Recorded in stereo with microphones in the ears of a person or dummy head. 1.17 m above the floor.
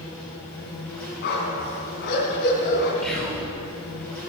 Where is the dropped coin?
I don't hear a dropped coin.